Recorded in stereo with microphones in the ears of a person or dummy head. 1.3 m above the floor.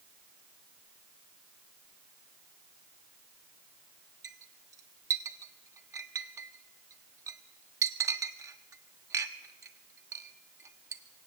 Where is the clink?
20° right (ahead or behind), 1.1 m.